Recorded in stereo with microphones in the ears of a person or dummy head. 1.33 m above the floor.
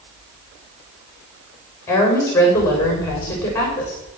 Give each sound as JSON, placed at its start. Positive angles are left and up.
{"t": 1.9, "sound": "a woman speaking", "side_deg": 15, "distance_m": 6.5}